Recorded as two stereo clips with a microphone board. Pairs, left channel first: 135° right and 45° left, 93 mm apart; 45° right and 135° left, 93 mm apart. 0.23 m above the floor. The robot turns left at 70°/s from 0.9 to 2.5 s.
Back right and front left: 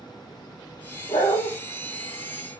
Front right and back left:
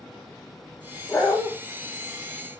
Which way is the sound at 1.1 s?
110° right.